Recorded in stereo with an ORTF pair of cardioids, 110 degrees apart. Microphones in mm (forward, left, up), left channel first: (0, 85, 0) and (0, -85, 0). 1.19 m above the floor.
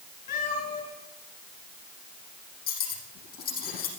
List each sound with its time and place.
0.3 s a cat meowing: 65° left, 4.5 m
2.7 s cutlery clinking: 65° left, 6 m